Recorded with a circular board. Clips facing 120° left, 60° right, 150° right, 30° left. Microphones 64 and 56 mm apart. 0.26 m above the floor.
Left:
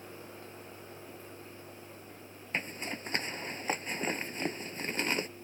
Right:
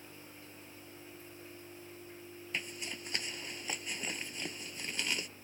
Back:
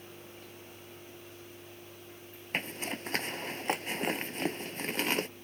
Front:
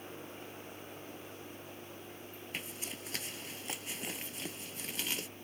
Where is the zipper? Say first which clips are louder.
Left 5 dB, back 10 dB; 170° left.